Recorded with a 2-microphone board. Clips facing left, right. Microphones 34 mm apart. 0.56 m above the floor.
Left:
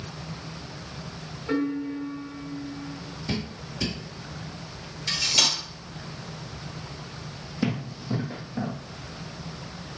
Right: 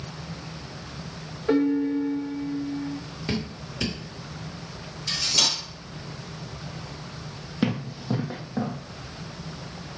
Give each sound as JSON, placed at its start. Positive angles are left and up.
{"t": 1.5, "sound": "a piano", "side_deg": -50, "distance_m": 1.6}
{"t": 3.3, "sound": "dripping", "side_deg": -50, "distance_m": 1.5}
{"t": 5.1, "sound": "cutlery clinking", "side_deg": 15, "distance_m": 1.1}
{"t": 7.6, "sound": "running footsteps", "side_deg": -40, "distance_m": 1.1}